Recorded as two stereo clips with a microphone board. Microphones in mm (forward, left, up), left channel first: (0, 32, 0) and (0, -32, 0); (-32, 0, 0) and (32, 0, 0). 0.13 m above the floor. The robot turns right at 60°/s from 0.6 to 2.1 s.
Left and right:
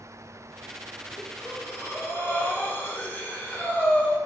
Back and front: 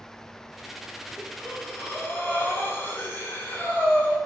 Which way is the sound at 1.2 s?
75° left.